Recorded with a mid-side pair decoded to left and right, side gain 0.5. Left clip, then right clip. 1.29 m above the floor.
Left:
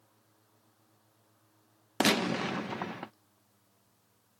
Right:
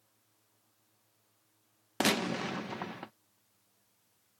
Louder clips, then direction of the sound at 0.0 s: Left 6 dB; 50° left.